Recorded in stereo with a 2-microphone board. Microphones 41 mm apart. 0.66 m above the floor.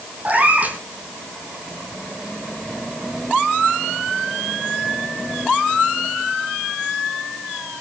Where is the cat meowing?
35° right (ahead or behind), 2 m.